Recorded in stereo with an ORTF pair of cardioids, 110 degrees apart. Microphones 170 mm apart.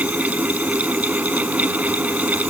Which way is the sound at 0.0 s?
10° right.